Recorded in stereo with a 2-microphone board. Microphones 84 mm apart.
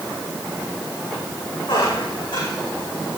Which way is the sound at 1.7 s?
80° left.